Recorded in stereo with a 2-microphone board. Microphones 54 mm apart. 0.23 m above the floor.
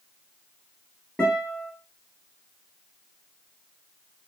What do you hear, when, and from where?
1.2 s a guitar: 10° left (ahead or behind), 1.7 m